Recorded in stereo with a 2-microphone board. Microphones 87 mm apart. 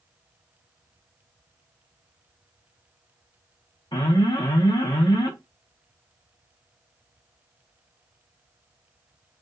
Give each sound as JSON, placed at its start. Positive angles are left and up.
{"t": 3.9, "sound": "an alarm", "side_deg": 60, "distance_m": 1.6}